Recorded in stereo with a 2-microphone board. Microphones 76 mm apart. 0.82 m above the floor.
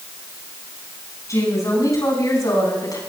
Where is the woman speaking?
45° left (ahead or behind), 8 m; by 3.0 s 55° left (ahead or behind), 8 m.